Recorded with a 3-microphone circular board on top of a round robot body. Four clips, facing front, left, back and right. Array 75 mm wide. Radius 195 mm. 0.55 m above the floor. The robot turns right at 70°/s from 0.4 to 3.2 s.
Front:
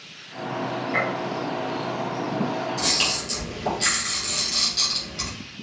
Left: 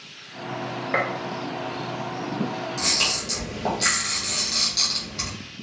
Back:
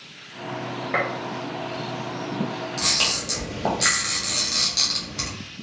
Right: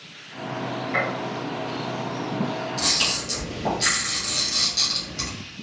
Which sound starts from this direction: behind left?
A camera shutter, at 2.8 s.